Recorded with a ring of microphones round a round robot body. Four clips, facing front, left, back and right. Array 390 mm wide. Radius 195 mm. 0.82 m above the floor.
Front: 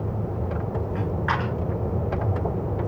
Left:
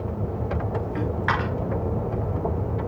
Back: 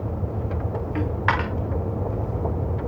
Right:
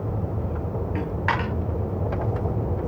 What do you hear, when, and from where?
0.9 s a dropped coin: 175° right, 3.5 m